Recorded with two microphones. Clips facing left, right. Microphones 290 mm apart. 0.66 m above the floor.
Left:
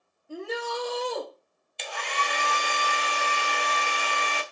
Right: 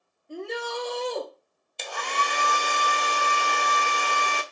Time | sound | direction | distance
0.3 | a shout | 5° left (ahead or behind) | 1.3 m
1.8 | a hair dryer | 50° right (ahead or behind) | 0.5 m